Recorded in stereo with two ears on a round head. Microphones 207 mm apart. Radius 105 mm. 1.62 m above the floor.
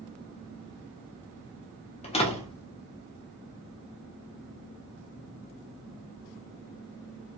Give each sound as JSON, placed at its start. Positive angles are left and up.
{"t": 2.0, "sound": "a door slam", "side_deg": 25, "distance_m": 0.7}